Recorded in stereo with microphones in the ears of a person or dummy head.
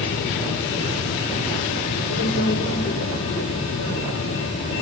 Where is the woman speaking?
65° left (ahead or behind), 5.5 m.